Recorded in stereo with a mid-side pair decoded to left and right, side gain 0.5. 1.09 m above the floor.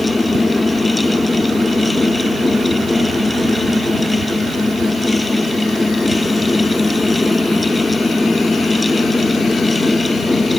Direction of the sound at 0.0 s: 20° left.